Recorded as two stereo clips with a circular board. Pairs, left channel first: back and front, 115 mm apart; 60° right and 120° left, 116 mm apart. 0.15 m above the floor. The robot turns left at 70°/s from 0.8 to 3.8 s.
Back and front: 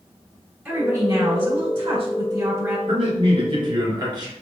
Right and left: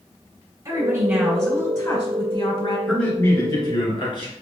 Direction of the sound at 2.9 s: 30° left.